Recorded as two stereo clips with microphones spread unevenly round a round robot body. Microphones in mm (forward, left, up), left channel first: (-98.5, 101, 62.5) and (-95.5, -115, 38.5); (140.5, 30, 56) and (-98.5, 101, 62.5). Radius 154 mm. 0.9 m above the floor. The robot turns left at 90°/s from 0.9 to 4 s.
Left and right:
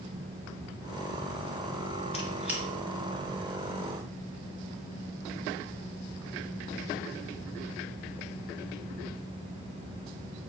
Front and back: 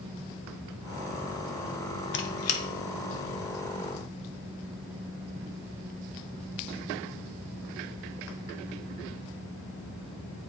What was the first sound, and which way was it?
A squeak, 25° left.